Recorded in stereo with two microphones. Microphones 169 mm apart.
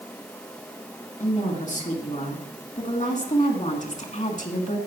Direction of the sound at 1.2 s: 45° left (ahead or behind).